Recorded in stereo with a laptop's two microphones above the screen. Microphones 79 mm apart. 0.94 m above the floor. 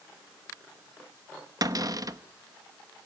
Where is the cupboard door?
50° right (ahead or behind), 1.0 m.